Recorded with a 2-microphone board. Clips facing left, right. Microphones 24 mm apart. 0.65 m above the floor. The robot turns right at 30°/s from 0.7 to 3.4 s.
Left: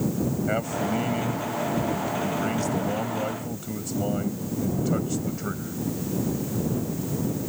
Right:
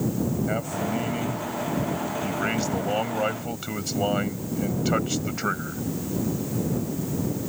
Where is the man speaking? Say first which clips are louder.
Left 1 dB; 170° left; by 5.8 s 105° right.